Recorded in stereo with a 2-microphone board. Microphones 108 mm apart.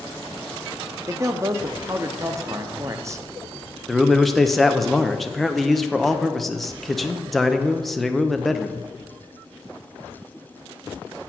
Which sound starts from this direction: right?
A man speaking, at 1.1 s.